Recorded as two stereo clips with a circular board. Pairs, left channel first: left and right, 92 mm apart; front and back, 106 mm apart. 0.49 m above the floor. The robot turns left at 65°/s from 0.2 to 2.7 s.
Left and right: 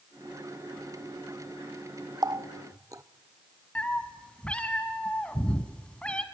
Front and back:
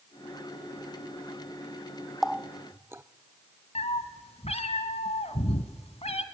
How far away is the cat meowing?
About 1.4 m.